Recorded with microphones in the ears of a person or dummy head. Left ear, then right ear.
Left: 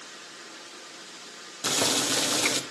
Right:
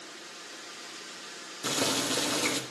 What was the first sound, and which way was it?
Boiling, 10° left (ahead or behind).